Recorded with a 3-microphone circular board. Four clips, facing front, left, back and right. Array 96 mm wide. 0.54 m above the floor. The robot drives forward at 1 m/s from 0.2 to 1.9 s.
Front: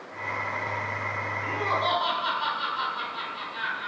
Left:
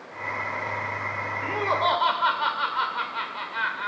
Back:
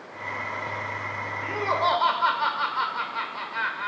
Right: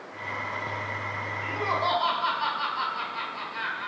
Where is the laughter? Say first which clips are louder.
Left 3 dB, back 3 dB; 110° left, 2.0 m; by 3.9 s 125° left, 2 m.